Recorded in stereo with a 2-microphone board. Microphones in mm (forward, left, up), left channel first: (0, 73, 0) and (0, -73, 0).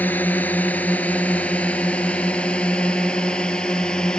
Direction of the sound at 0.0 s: 10° left (ahead or behind).